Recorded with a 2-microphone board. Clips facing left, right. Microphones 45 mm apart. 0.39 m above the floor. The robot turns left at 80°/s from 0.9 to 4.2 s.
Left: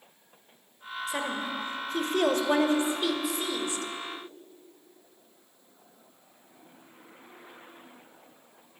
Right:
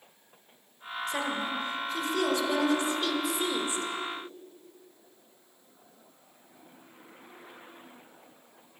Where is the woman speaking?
Straight behind, 1.3 m; by 3.9 s 45° right, 1.3 m.